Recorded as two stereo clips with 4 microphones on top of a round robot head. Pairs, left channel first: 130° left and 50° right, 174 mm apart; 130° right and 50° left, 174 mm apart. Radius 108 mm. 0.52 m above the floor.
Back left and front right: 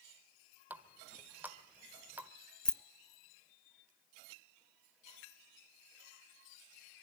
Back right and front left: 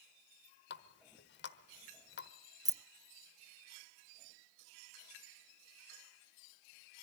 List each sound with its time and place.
0.7 s a running tap: 130° right, 1.2 m
2.6 s keys jangling: 55° left, 0.6 m